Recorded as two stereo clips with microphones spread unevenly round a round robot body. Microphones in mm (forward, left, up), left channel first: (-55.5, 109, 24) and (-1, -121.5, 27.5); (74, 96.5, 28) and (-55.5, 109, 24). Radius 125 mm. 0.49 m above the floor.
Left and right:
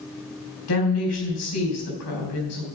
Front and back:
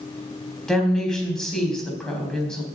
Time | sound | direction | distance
0.7 | a woman speaking | 80° left | 3.5 m